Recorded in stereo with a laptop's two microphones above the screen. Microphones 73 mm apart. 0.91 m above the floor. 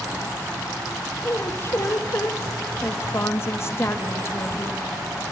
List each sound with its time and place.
1.2 s a woman speaking: 35° left (ahead or behind), 1.4 m